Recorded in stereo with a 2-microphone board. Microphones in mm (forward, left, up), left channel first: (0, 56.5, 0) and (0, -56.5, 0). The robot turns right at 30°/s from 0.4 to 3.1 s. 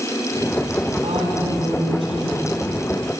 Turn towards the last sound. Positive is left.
turn(degrees=-25)